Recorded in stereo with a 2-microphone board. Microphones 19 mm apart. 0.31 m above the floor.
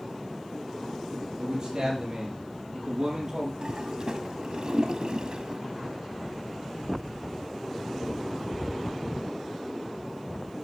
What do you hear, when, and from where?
1.4 s a man speaking: 40° right (ahead or behind), 7.5 m; by 3.5 s 30° right (ahead or behind), 7 m
3.6 s a toilet flushing: 50° right (ahead or behind), 1.0 m